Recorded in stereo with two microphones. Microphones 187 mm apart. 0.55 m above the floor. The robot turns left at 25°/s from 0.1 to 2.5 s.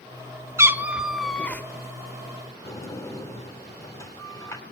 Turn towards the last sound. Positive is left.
turn(degrees=15)  # may be behind; listen again after turning